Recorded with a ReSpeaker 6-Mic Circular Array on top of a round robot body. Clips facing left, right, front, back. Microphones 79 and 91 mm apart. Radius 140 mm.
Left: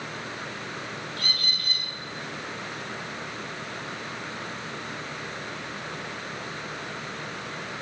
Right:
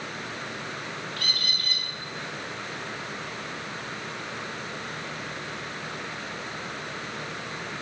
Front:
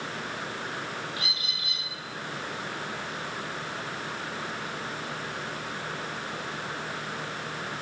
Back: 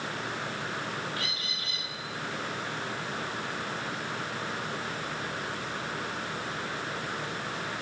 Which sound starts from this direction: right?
A bird, at 1.2 s.